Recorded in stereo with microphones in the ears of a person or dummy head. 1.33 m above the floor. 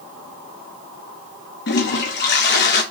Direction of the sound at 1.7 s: 50° left (ahead or behind).